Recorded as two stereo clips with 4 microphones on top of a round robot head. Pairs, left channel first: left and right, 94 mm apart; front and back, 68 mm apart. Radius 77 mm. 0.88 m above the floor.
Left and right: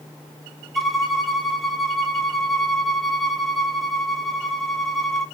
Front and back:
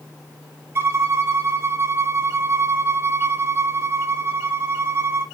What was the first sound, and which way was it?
A violin, straight behind.